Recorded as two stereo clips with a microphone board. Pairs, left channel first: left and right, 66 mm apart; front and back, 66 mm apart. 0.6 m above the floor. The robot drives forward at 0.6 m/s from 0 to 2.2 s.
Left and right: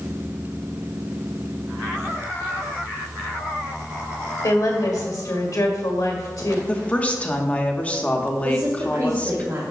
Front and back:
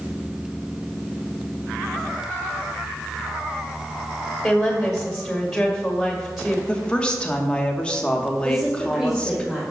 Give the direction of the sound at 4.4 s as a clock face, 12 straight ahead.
9 o'clock.